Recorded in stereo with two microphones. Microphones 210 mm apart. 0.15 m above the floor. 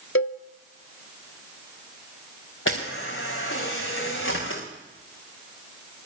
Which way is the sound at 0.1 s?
70° left (ahead or behind).